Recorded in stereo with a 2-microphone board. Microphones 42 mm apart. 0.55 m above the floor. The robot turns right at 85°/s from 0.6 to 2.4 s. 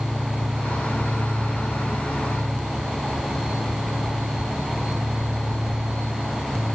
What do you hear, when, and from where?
Only background noise.